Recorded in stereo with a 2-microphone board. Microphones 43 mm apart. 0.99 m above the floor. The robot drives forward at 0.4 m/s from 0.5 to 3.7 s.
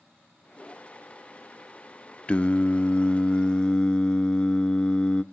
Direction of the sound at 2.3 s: 30° left (ahead or behind).